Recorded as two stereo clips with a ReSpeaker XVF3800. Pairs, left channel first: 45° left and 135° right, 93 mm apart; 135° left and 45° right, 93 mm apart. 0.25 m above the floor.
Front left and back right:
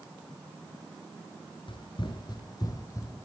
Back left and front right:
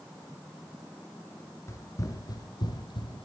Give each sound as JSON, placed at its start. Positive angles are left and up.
{"t": 1.7, "sound": "running footsteps", "azimuth_deg": 75, "distance_m": 1.7}